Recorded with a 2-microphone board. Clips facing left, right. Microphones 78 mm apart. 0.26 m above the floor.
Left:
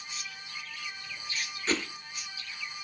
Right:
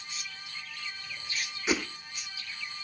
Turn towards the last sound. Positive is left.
turn(degrees=-10)  # may be behind; listen again after turning